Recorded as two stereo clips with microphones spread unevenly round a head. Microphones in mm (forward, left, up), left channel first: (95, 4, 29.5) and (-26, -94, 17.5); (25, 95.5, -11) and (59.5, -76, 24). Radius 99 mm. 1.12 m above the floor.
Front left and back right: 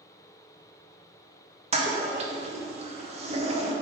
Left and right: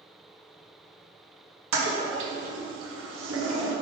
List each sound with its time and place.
1.7 s a toilet flushing: 100° right, 1.4 m